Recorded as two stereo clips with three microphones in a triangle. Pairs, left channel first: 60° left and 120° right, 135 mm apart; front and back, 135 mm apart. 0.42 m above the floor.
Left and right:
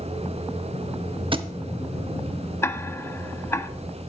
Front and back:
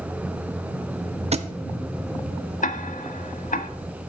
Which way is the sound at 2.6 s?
15° right.